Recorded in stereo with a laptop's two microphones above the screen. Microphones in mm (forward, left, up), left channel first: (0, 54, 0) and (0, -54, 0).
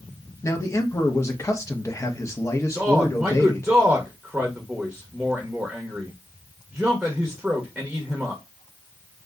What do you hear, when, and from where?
0.4 s a man speaking: 25° left (ahead or behind), 0.8 m
2.8 s a man speaking: 5° right (ahead or behind), 0.8 m